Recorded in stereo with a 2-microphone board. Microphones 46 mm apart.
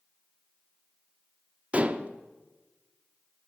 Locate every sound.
1.7 s dishes clattering: 30° right (ahead or behind), 0.5 m